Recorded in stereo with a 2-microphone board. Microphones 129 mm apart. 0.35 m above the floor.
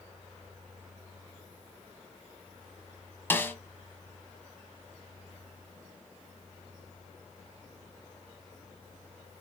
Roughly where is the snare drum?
Centre.